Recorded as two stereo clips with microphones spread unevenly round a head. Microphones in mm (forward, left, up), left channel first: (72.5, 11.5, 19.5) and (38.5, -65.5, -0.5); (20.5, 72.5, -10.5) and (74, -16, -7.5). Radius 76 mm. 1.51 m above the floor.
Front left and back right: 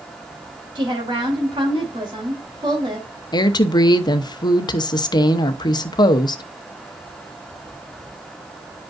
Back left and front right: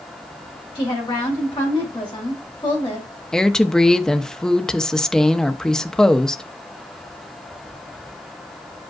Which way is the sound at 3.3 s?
35° left.